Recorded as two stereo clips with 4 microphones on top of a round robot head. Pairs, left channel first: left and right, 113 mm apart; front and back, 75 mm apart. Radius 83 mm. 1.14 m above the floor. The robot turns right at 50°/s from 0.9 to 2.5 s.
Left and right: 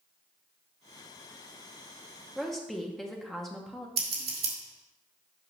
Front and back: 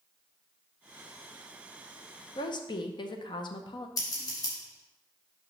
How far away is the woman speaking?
About 0.8 m.